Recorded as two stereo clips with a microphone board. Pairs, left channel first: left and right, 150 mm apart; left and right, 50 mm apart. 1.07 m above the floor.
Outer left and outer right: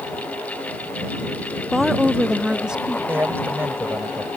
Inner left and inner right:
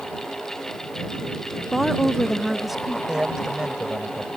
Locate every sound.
1.7 s a woman speaking: centre (ahead or behind); by 3.0 s 5° right (ahead or behind)
3.1 s a man speaking: 15° right (ahead or behind)